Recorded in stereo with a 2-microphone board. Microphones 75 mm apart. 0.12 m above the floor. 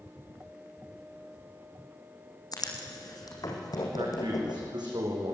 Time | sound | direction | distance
2.5 | writing | 60° left (ahead or behind) | 4.5 m
4.0 | a man speaking | 75° right (ahead or behind) | 10 m